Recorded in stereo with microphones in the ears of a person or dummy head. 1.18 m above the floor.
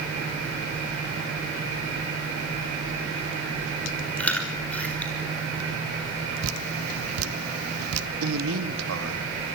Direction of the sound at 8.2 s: 80° right.